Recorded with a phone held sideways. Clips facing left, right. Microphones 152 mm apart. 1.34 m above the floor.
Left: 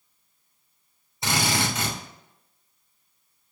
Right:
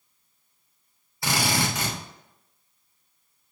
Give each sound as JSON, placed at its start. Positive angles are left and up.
{"t": 1.2, "sound": "a drill", "side_deg": 20, "distance_m": 3.0}